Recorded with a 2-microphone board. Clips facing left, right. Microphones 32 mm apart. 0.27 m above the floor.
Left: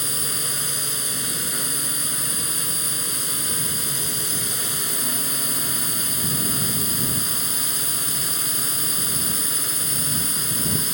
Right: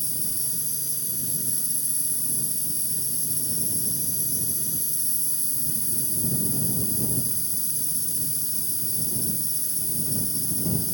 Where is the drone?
60° left (ahead or behind).